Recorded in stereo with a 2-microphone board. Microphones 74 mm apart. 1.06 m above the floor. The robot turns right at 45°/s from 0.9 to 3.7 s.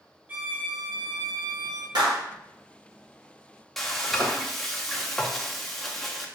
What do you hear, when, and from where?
0.3 s a violin: 160° right, 0.7 m; by 1.9 s 115° right, 0.7 m
1.9 s a clap: 75° right (ahead or behind), 1.3 m; by 2.2 s 85° right, 1.3 m
3.8 s frying: 5° left (ahead or behind), 0.5 m